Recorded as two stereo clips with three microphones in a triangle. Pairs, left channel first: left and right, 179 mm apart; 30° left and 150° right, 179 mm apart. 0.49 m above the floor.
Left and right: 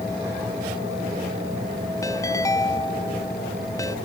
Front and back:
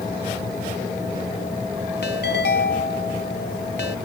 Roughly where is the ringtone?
Ahead.